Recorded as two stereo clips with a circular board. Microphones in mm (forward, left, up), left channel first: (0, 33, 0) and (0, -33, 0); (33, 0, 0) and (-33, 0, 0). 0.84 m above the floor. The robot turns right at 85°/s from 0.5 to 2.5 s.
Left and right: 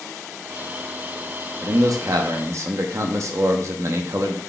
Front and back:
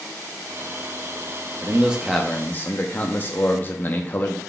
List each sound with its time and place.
1.6 s a man speaking: 130° right, 0.8 m; by 4.4 s 55° right, 0.8 m